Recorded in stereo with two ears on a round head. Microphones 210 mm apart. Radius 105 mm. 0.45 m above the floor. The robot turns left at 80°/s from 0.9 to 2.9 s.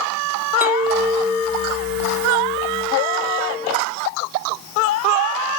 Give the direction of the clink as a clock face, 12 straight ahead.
6 o'clock.